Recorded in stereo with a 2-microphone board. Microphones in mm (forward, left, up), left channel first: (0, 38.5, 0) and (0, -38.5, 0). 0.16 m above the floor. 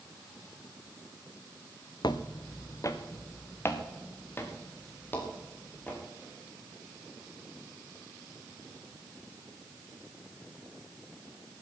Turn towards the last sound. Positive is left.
turn(degrees=25)  # may be behind; listen again after turning